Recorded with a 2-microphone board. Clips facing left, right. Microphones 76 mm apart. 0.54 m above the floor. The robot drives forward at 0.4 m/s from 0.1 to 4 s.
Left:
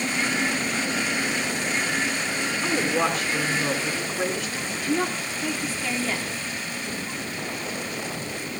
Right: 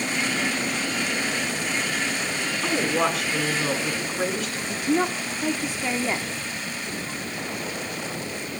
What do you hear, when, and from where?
2.6 s a woman speaking: 5° right (ahead or behind), 6 m
4.7 s a woman speaking: 20° right (ahead or behind), 1.2 m